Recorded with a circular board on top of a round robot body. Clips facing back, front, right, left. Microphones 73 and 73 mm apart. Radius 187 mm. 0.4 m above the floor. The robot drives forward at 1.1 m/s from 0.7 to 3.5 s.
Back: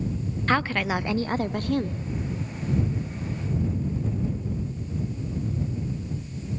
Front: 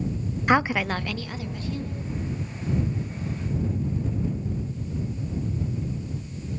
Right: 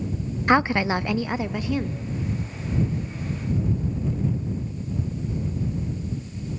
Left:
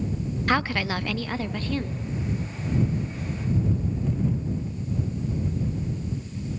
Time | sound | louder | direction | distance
0.5 | a woman speaking | front 2 dB, right 5 dB | 55° right | 0.8 m